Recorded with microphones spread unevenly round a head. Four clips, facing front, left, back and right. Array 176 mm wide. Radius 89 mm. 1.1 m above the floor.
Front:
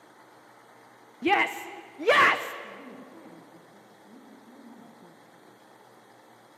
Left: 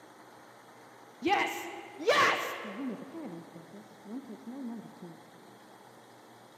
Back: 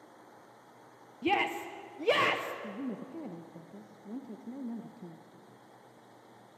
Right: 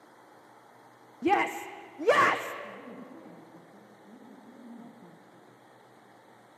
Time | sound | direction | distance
1.2 | a shout | 45° right | 0.7 m
2.6 | a woman speaking | 140° left | 1.2 m